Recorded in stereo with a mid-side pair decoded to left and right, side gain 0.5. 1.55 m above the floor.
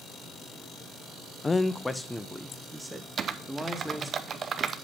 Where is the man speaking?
25° left, 0.7 m; by 4.2 s 10° right, 2.5 m.